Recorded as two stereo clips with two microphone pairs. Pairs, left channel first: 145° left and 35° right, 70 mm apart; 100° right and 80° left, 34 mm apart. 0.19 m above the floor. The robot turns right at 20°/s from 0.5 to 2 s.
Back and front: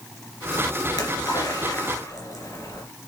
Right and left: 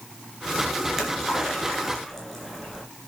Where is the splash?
155° left, 3 m; by 2.8 s 175° left, 3 m.